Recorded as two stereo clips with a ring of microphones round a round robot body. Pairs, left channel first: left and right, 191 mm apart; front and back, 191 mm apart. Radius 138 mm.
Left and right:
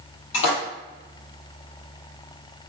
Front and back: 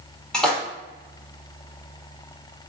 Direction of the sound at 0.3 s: 85° left.